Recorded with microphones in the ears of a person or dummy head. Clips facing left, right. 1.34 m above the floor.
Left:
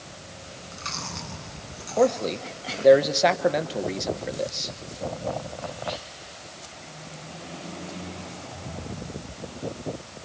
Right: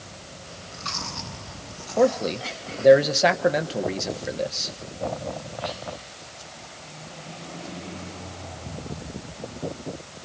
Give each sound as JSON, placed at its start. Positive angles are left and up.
{"t": 0.4, "sound": "chewing", "side_deg": 35, "distance_m": 9.5}
{"t": 2.0, "sound": "a man speaking", "side_deg": -10, "distance_m": 1.1}